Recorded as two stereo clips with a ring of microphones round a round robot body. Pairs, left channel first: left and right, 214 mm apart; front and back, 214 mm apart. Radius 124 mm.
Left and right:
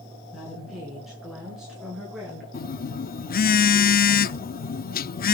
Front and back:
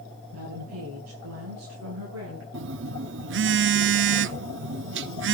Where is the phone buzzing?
140° left, 0.6 m.